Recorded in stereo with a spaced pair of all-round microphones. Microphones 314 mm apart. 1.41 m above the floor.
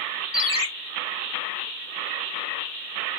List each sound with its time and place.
0.3 s a ringtone: 15° right (ahead or behind), 0.5 m